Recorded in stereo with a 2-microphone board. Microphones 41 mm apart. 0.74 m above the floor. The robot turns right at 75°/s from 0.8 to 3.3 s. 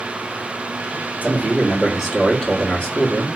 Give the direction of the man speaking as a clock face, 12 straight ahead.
3 o'clock.